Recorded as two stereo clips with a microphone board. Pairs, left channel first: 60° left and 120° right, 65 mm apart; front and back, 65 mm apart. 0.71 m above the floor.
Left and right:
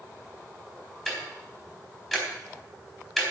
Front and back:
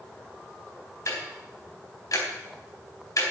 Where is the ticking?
25° right, 3.5 m.